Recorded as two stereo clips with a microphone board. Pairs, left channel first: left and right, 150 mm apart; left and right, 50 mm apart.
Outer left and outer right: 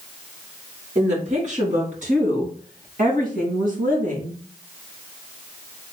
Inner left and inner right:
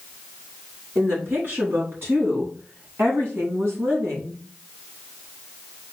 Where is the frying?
No frying in this recording.